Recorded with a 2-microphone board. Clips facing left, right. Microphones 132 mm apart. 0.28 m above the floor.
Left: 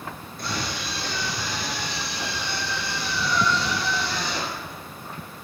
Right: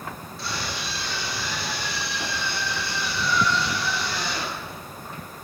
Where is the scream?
50° left (ahead or behind), 4.5 m; by 4.8 s 25° left (ahead or behind), 6 m.